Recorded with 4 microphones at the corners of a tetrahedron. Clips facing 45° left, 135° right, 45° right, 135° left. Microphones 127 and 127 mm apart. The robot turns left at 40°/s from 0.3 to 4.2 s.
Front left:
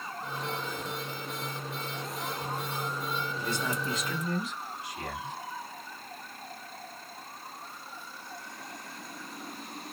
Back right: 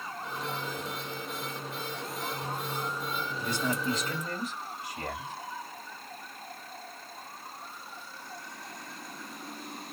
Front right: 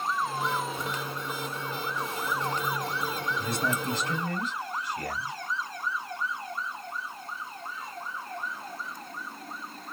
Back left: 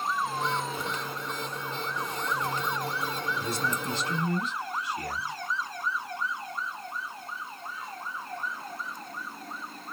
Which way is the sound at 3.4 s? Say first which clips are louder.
Back right 4 dB, front right 3 dB; 55° right.